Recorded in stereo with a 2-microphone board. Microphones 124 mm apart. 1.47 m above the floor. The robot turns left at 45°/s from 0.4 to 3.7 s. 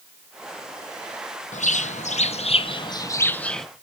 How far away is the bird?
About 0.9 m.